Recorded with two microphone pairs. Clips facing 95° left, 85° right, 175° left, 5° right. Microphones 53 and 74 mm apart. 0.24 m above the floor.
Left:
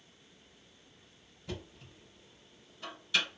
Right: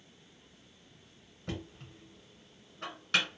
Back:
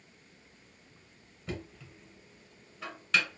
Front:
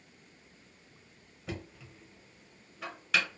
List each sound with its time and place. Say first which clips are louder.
1.5 s knocking: right 2 dB, back 1 dB; 85° right, 2.0 m